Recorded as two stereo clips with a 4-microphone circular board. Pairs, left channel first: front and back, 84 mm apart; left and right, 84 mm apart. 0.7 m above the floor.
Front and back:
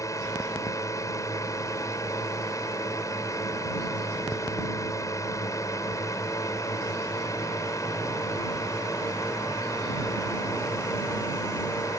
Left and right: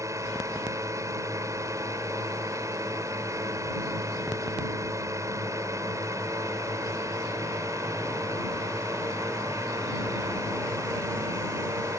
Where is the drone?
45° right.